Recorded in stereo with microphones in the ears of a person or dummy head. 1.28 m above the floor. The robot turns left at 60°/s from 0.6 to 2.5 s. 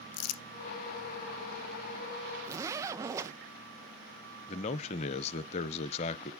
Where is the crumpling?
75° left (ahead or behind), 0.6 m.